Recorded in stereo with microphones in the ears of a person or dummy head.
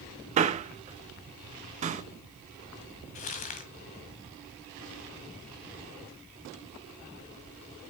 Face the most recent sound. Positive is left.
turn(degrees=35)  # may be behind; listen again after turning